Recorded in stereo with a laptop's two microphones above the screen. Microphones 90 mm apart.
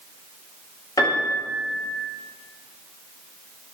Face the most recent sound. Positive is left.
turn(degrees=45)  # may be behind; listen again after turning